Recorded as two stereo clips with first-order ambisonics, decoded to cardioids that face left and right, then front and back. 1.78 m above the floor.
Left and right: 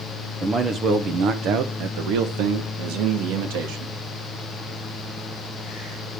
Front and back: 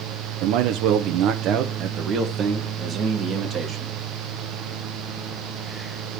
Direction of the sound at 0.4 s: 165° right.